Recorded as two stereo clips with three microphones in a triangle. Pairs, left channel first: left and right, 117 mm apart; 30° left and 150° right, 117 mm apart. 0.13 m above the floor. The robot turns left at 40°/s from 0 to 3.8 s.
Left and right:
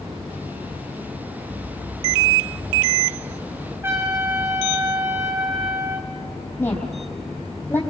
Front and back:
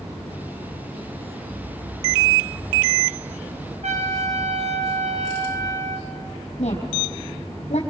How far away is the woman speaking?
About 4 m.